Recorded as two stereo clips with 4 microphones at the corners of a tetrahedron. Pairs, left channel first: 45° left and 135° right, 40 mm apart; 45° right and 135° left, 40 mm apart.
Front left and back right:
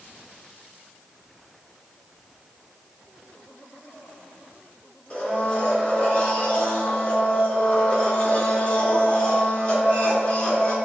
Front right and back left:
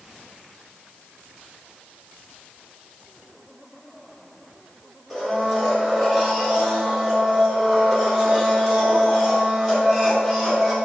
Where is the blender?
50° left, 1.5 m.